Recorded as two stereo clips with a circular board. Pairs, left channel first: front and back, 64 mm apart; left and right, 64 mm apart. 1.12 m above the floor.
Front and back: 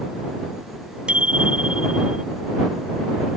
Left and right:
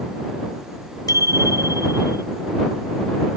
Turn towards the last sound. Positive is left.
turn(degrees=105)